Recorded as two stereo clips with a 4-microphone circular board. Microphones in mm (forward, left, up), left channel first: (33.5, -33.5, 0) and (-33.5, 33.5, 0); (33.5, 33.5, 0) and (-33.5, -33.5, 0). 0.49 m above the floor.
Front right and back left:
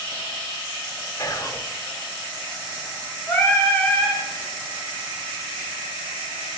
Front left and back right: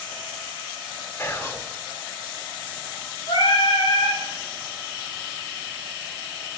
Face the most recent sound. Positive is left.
turn(degrees=25)